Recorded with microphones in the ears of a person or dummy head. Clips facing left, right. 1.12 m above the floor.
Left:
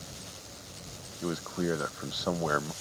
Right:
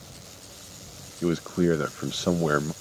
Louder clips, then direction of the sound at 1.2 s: Right 8 dB; 35° right (ahead or behind).